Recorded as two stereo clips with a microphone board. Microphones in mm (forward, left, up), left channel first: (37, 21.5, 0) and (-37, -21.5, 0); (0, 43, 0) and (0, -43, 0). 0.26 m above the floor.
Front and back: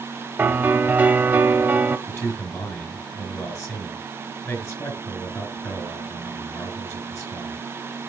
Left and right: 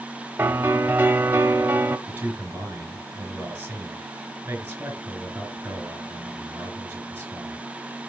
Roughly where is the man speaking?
Ahead right.